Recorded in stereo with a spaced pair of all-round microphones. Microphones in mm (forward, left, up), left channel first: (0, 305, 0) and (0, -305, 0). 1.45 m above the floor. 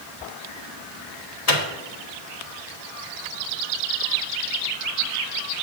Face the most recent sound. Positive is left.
turn(degrees=75)  # may be behind; listen again after turning